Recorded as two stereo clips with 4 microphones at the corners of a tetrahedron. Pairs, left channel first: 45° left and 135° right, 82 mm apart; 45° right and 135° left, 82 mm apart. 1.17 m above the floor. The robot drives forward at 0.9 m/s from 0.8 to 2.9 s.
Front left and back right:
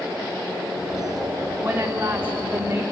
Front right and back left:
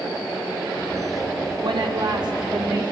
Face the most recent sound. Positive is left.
turn(degrees=165)